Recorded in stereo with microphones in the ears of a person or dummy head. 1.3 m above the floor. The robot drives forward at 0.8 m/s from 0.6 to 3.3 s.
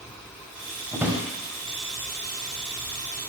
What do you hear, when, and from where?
0.9 s a drawer: 10° right (ahead or behind), 1.5 m; by 1.2 s 15° right (ahead or behind), 1.3 m